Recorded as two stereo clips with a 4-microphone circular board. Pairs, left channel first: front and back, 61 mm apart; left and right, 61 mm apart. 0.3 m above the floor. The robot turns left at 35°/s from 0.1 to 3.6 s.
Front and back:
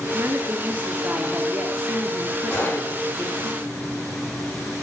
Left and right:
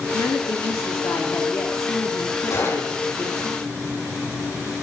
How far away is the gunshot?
About 10 m.